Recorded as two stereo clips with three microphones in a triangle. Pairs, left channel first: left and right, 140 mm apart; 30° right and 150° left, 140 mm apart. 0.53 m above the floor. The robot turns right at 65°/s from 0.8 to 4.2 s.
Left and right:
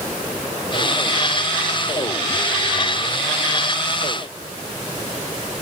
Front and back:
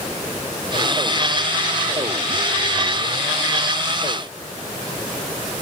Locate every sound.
Only background noise.